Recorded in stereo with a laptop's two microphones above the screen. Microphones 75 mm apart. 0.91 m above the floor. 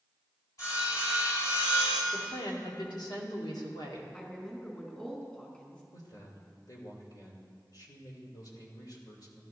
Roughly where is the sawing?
Left.